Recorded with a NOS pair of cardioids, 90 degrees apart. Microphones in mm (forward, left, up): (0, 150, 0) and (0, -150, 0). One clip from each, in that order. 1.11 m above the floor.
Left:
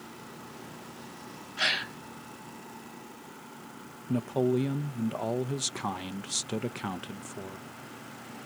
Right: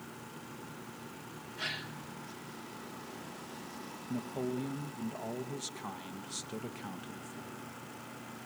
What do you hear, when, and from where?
1.6 s a gasp: 70° left, 1.0 m
4.1 s a man speaking: 50° left, 0.8 m